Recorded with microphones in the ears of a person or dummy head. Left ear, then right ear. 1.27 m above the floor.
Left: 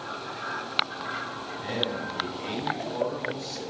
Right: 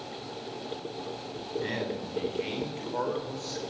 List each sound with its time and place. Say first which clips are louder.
1.6 s a man speaking: left 6 dB; 35° right (ahead or behind), 5.5 m; by 3.6 s 25° right (ahead or behind), 6 m